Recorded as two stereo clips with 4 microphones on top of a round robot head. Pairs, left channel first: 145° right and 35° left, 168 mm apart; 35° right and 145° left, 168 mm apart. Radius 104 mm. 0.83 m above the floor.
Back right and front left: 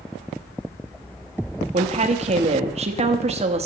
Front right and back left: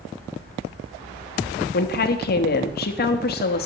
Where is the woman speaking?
15° right, 1.0 m.